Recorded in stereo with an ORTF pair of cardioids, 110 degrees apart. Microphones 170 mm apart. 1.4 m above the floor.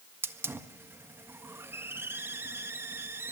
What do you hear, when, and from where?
0.2 s a hiss: 15° right, 1.5 m